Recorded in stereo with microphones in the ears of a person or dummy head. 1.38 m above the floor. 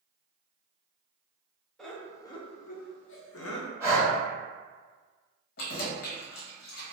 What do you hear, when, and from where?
1.8 s laughter: centre (ahead or behind), 0.7 m; by 3.7 s 75° left (ahead or behind), 0.7 m
3.8 s breathing: 10° right (ahead or behind), 1.1 m
5.6 s keys jangling: 70° left (ahead or behind), 0.8 m